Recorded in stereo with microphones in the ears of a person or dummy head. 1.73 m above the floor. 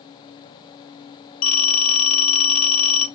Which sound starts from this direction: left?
A phone ringing, at 1.4 s.